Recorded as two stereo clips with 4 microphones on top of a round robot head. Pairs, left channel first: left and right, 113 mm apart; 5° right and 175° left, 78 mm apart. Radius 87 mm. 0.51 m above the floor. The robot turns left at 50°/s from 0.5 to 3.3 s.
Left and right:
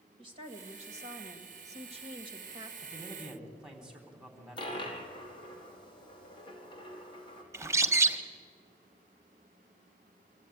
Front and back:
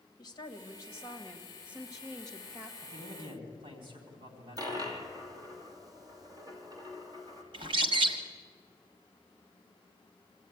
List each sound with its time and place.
0.2 s a woman speaking: 45° right, 2 m; by 2.7 s 155° right, 2 m
2.8 s a man speaking: 150° right, 4 m; by 4.8 s 175° right, 4 m
4.6 s a dropped coin: 135° left, 3 m
7.5 s a bird: 155° right, 1.2 m